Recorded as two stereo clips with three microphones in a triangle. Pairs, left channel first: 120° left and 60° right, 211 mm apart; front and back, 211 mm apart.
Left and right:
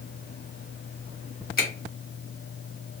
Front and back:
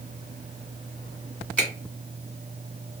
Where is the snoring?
No snoring in this recording.